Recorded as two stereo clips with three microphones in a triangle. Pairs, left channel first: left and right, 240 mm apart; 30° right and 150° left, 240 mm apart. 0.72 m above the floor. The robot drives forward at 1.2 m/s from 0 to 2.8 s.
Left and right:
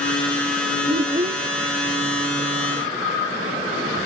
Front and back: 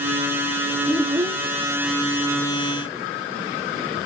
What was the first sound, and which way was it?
A child speaking, 90° right.